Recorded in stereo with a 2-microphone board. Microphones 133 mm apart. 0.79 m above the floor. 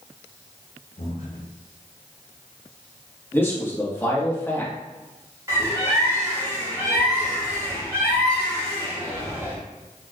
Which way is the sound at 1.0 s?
60° left (ahead or behind).